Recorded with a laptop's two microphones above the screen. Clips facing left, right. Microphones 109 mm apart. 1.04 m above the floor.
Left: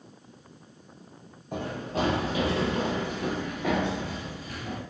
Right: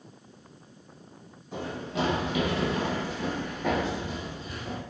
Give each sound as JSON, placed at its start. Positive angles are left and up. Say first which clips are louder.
{"t": 1.5, "sound": "running footsteps", "louder": "left 2 dB", "side_deg": 50, "distance_m": 1.5}